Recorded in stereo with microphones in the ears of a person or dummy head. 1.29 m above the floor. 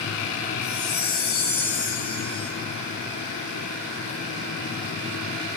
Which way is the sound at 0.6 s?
35° left (ahead or behind).